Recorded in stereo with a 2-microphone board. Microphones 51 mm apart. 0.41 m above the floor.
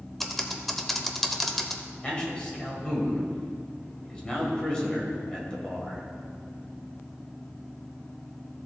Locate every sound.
0.2 s typing on a keyboard: 5° left (ahead or behind), 0.7 m
2.0 s a man speaking: 20° left (ahead or behind), 2.5 m